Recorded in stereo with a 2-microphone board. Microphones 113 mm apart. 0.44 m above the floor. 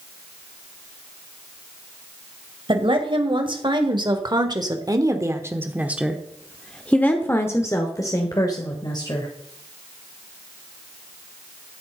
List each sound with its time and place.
2.7 s a woman speaking: 50° right (ahead or behind), 2.5 m; by 9.3 s 40° left (ahead or behind), 2 m